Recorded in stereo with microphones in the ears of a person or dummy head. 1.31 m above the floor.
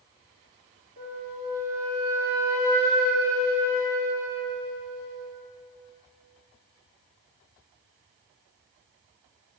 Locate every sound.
1.0 s a flute: 65° right (ahead or behind), 3.5 m